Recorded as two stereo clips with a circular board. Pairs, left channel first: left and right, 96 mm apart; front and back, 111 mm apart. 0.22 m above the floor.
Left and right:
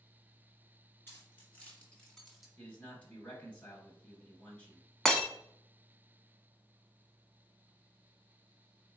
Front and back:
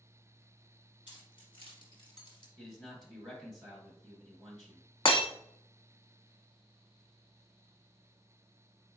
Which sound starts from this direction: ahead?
Breaking glass, at 5.0 s.